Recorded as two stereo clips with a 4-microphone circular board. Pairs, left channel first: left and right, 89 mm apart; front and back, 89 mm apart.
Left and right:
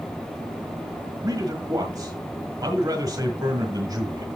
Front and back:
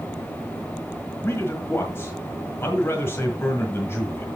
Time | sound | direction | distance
1.2 | a man speaking | 55° right | 1.7 m